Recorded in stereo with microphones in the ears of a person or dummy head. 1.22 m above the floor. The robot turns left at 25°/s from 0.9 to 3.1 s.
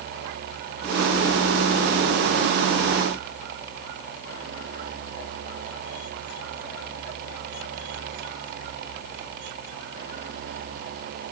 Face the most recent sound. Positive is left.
No sound to turn to.